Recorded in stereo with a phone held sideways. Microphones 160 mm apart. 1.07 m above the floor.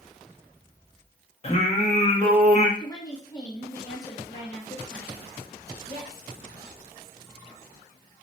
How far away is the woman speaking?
About 1.8 m.